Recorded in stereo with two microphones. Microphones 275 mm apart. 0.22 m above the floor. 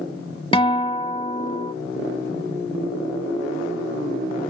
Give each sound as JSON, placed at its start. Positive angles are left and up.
{"t": 0.5, "sound": "a guitar", "side_deg": 20}